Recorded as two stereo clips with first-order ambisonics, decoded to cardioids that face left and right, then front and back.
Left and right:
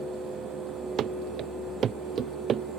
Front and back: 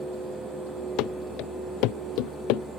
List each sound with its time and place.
1.0 s running footsteps: 35° right; by 2.6 s 25° right